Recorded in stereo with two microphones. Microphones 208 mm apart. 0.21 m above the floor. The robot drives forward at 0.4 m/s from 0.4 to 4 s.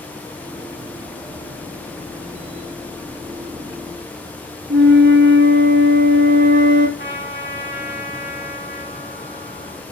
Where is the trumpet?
60° left (ahead or behind), 6 m.